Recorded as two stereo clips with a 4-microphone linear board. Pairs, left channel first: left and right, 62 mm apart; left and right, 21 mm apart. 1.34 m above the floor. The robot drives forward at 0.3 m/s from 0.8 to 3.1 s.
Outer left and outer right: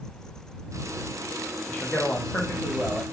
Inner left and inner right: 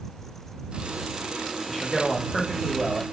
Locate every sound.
1.7 s a man speaking: 25° left (ahead or behind), 0.5 m; by 3.0 s 15° left (ahead or behind), 0.8 m